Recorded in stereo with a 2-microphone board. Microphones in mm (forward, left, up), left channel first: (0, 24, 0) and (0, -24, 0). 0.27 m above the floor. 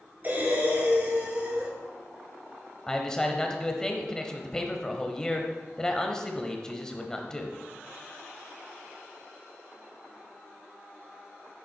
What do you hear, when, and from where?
0.2 s breathing: 35° right (ahead or behind), 3 m
2.9 s a man speaking: 10° left (ahead or behind), 1.0 m